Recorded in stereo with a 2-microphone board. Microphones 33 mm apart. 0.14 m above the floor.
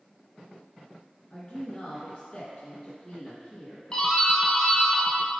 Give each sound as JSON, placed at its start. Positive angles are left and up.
{"t": 1.3, "sound": "a woman speaking", "side_deg": 25, "distance_m": 1.6}
{"t": 3.9, "sound": "a doorbell", "side_deg": 25, "distance_m": 2.0}